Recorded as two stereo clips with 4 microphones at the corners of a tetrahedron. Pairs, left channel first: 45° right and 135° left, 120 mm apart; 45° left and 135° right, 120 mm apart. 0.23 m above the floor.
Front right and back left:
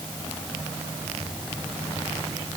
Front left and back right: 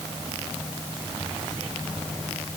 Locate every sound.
Only background noise.